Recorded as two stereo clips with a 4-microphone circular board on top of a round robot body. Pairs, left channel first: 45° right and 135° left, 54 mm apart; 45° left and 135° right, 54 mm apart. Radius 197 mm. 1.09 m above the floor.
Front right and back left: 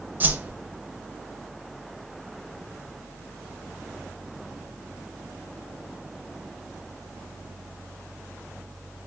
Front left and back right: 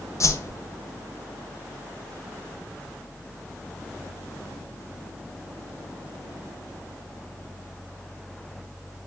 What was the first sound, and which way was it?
A whoosh, 75° left.